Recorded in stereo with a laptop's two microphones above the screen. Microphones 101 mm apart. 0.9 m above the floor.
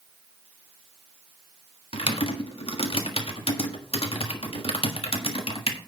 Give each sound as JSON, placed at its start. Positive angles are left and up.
{"t": 1.9, "sound": "typing on a keyboard", "side_deg": 70, "distance_m": 1.4}